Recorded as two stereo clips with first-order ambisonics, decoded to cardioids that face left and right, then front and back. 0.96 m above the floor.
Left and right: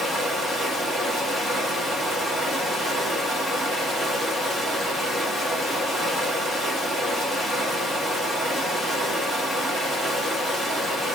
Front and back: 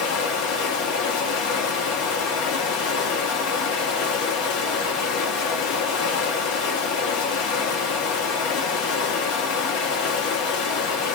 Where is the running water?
5° right, 1.1 m.